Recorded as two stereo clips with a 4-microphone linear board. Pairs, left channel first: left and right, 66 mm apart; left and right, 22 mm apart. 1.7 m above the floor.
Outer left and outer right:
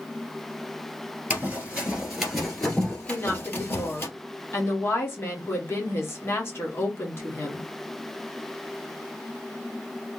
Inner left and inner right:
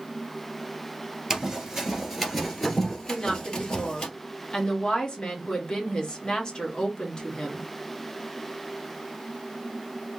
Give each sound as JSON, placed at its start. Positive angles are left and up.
{"t": 1.3, "sound": "running footsteps", "side_deg": -20, "distance_m": 1.9}
{"t": 3.1, "sound": "a woman speaking", "side_deg": 35, "distance_m": 1.3}